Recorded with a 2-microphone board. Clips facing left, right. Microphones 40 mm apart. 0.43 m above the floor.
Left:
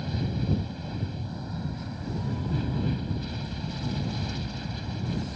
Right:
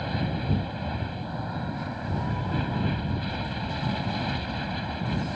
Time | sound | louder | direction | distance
0.0 | an aircraft | right 2 dB | 30° right (ahead or behind) | ?